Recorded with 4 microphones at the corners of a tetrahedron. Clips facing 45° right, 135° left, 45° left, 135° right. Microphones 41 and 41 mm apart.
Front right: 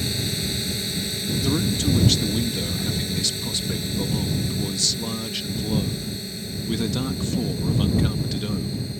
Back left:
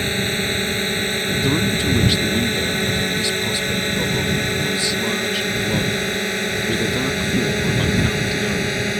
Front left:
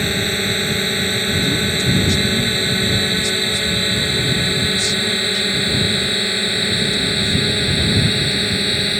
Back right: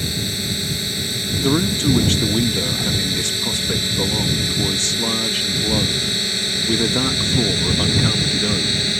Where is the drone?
90° left; by 9.0 s 115° left.